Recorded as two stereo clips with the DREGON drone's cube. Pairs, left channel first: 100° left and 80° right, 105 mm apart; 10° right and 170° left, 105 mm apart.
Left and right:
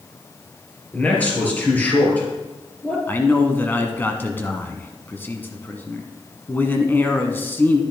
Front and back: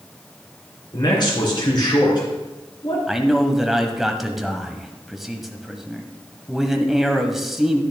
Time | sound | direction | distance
0.9 | a man speaking | 30° left | 3.5 m
3.1 | a man speaking | 85° left | 1.1 m